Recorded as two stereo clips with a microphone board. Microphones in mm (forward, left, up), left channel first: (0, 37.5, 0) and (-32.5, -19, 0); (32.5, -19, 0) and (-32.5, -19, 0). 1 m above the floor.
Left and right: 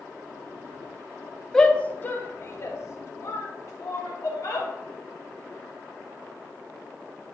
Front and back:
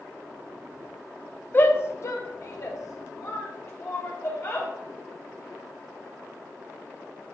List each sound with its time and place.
1.5 s a shout: 15° right, 0.8 m; by 4.7 s 35° left, 2.5 m